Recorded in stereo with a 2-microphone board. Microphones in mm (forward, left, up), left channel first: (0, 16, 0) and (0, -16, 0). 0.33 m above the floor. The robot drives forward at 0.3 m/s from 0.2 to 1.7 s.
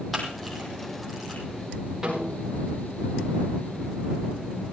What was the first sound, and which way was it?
A camera shutter, 5° right (ahead or behind).